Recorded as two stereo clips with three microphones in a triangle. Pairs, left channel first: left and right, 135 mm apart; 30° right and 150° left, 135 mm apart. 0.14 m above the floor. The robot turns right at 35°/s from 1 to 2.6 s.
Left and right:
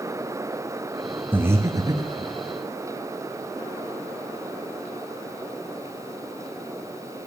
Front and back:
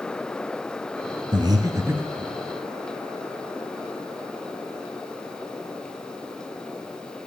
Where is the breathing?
165° right, 0.9 m; by 2.3 s 130° right, 0.9 m.